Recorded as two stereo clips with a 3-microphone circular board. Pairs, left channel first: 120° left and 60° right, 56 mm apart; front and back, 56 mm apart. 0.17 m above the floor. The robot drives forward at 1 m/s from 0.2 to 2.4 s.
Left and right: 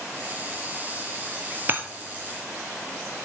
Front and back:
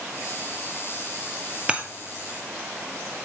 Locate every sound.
1.7 s breaking glass: 110° right, 1.1 m; by 1.8 s 120° right, 1.1 m